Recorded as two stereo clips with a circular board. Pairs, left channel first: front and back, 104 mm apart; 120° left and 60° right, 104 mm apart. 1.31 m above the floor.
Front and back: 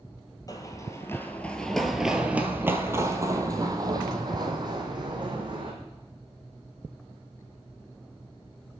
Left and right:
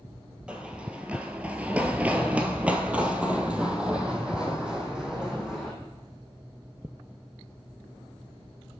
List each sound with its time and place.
0.5 s running footsteps: 15° left, 1.5 m; by 5.7 s 140° right, 3.5 m